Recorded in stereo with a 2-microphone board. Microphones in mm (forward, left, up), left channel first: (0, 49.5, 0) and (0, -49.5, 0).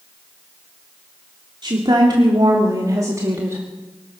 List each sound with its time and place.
1.6 s a woman speaking: 50° right (ahead or behind), 2.5 m; by 3.6 s 25° right (ahead or behind), 1.8 m